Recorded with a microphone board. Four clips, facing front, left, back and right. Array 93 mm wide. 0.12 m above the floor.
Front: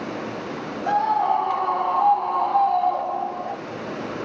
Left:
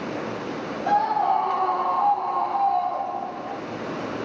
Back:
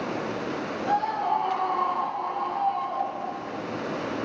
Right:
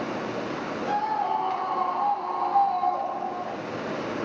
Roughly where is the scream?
Ahead left.